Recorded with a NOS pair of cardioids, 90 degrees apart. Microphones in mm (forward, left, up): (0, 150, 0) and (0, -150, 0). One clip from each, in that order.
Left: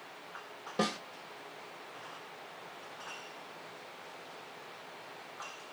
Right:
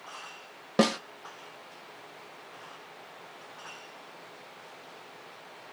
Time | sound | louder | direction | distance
0.8 | a snare drum | right 8 dB | 50° right | 0.5 m